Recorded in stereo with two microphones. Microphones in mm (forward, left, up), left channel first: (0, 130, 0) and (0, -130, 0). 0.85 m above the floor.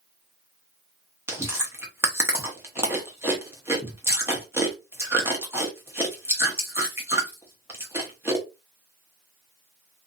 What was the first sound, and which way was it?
Chewing, 10° right (ahead or behind).